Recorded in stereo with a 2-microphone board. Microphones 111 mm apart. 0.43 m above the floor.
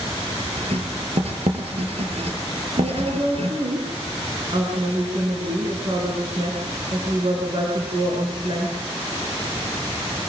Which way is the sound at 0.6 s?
60° right (ahead or behind).